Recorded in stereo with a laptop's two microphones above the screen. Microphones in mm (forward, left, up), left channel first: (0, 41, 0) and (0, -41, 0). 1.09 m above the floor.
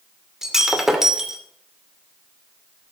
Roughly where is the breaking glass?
Centre.